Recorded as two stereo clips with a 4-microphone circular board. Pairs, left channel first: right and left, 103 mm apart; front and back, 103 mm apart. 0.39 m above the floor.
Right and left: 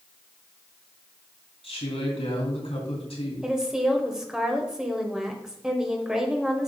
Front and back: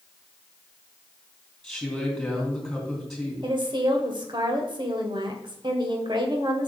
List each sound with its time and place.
1.6 s a woman speaking: 85° right, 3.5 m
3.4 s a woman speaking: 170° left, 1.4 m